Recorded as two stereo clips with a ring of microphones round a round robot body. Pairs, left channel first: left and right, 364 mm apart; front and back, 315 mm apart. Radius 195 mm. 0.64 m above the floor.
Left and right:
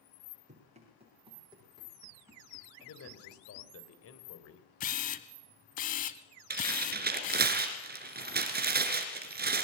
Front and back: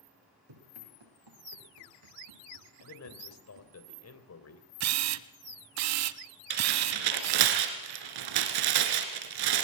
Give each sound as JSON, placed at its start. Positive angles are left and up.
{"t": 0.5, "sound": "running footsteps", "azimuth_deg": -160, "distance_m": 8.5}
{"t": 2.8, "sound": "a man speaking", "azimuth_deg": 40, "distance_m": 3.5}
{"t": 4.8, "sound": "a camera shutter", "azimuth_deg": 155, "distance_m": 0.7}
{"t": 6.5, "sound": "tearing paper", "azimuth_deg": -155, "distance_m": 2.5}